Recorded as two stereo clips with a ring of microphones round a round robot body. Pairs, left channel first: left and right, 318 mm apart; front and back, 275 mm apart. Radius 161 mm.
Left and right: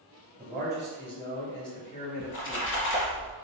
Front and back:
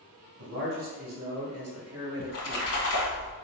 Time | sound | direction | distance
0.4 | a man speaking | 170° right | 1.8 m
2.2 | a splash | 40° left | 1.5 m